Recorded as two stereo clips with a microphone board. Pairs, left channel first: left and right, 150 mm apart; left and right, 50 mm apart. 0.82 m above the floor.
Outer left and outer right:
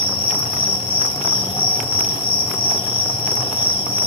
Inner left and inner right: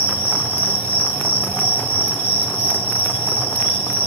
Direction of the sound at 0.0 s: 40° left (ahead or behind).